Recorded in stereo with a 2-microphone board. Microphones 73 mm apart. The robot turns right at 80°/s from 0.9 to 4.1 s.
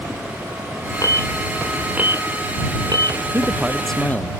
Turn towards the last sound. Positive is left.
turn(degrees=20)